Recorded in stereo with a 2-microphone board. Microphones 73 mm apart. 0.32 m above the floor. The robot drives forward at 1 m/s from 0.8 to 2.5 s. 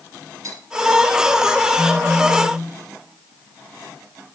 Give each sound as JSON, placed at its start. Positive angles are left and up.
{"t": 0.4, "sound": "cutlery clinking", "side_deg": -50, "distance_m": 4.5}
{"t": 1.8, "sound": "a phone buzzing", "side_deg": 40, "distance_m": 1.2}